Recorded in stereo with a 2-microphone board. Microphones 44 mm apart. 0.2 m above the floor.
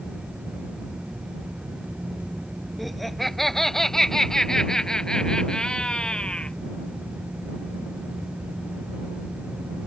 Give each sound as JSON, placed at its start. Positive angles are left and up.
{"t": 2.8, "sound": "laughter", "side_deg": 0}